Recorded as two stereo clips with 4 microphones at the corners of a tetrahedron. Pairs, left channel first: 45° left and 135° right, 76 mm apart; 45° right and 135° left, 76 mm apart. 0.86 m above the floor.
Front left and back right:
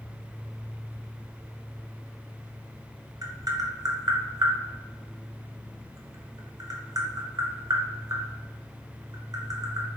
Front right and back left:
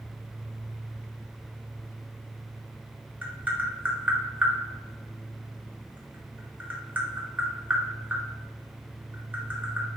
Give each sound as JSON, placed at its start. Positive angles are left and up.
{"t": 3.2, "sound": "tapping", "azimuth_deg": -160, "distance_m": 0.8}